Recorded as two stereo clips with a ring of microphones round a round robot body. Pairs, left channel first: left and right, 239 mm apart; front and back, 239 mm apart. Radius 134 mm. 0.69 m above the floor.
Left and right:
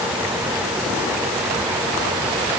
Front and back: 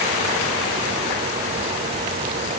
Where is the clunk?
No clunk in this recording.